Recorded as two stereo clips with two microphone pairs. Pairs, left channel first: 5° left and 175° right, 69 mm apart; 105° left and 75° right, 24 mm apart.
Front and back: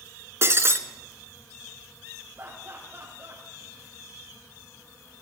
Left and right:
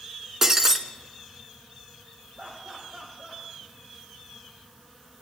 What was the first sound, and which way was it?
Breaking glass, 140° right.